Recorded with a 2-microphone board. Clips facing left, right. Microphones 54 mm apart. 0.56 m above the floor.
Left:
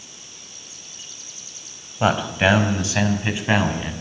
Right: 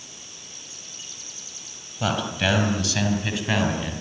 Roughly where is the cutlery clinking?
No cutlery clinking in this recording.